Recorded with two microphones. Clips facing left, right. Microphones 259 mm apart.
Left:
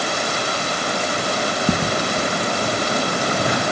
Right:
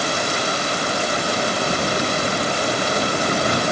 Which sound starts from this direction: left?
Footsteps, at 1.7 s.